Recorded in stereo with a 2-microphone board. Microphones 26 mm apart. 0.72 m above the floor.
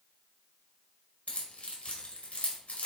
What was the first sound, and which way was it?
Keys jangling, 65° left (ahead or behind).